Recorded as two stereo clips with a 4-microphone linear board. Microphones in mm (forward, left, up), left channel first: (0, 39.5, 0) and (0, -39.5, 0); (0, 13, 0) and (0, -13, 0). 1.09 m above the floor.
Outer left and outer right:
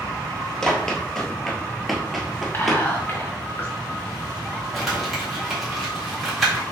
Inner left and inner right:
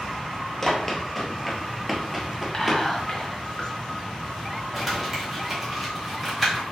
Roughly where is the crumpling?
Centre.